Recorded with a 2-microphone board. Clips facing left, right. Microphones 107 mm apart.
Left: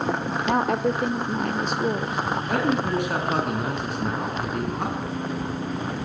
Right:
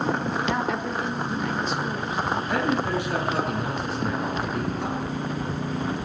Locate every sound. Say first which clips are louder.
0.5 s a woman speaking: left 4 dB; 50° left (ahead or behind), 2.0 m
2.5 s a man speaking: left 3 dB; 55° left (ahead or behind), 7.5 m